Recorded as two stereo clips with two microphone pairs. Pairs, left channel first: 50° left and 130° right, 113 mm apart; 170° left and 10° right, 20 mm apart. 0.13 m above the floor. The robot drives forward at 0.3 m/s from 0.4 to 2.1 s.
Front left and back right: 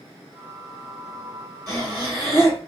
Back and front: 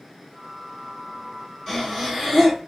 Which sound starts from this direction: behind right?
Breathing, at 1.7 s.